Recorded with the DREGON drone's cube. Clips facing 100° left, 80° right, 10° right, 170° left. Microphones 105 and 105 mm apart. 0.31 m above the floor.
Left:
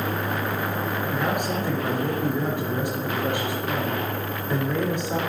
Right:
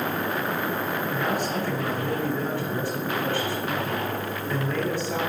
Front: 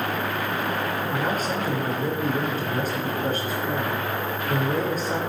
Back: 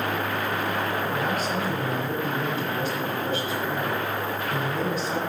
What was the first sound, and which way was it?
A man speaking, 30° left.